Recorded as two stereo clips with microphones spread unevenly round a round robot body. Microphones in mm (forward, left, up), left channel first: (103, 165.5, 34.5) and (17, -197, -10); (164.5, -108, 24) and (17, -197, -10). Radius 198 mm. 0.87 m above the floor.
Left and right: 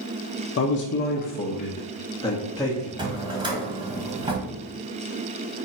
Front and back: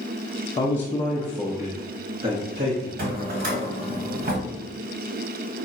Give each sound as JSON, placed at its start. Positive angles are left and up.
{"t": 0.6, "sound": "a man speaking", "azimuth_deg": 105, "distance_m": 0.7}
{"t": 3.0, "sound": "a drawer", "azimuth_deg": 175, "distance_m": 0.9}